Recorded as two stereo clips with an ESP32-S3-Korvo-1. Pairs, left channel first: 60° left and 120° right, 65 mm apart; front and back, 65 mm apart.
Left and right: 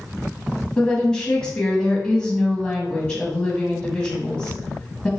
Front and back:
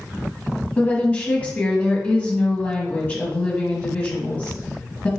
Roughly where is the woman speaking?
Ahead.